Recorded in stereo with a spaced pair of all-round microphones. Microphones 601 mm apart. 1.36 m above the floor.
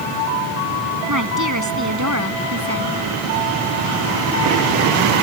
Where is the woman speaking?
30° right (ahead or behind); by 2.9 s 25° right (ahead or behind).